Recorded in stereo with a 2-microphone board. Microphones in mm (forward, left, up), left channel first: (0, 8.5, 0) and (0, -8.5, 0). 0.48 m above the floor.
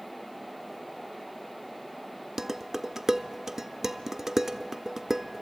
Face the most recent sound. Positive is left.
turn(degrees=-30)  # may be behind; listen again after turning